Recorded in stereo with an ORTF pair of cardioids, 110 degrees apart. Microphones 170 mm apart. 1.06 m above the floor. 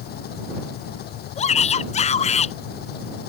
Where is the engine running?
70° left.